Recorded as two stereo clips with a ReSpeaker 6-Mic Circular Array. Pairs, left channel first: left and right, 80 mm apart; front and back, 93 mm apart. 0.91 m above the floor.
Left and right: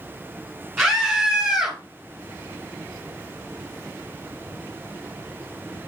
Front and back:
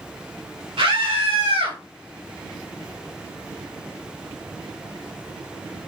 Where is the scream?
175° left, 3.5 m; by 1.8 s 175° right, 4 m.